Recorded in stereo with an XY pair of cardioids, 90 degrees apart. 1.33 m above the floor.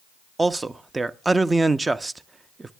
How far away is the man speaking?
About 0.6 m.